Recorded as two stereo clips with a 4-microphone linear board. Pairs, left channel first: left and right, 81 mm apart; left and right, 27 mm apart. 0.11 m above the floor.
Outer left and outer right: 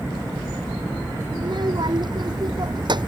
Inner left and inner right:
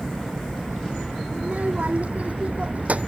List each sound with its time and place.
1.4 s a child speaking: 55° right (ahead or behind)